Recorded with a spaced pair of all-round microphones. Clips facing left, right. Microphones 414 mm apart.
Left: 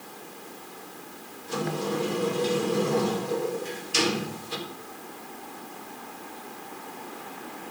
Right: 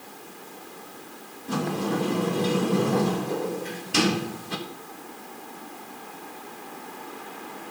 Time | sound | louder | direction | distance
1.5 | a sliding door | right 2 dB | 70° right (ahead or behind) | 1.5 m